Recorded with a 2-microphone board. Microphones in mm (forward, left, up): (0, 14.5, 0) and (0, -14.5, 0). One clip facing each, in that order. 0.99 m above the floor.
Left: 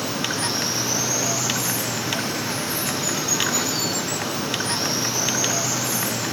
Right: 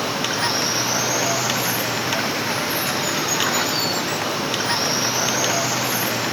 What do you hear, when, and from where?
0.0 s running water: 20° right (ahead or behind)